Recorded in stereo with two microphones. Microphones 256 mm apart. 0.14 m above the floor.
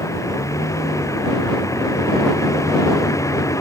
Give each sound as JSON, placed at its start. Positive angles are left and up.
{"t": 0.0, "sound": "a vehicle", "side_deg": 10}